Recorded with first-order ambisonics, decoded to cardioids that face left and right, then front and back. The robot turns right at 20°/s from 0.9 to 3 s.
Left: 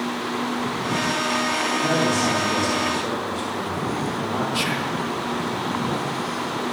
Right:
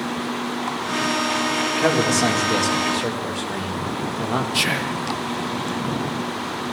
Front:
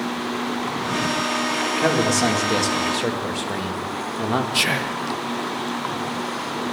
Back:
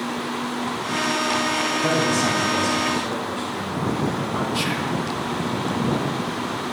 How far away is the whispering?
About 0.5 m.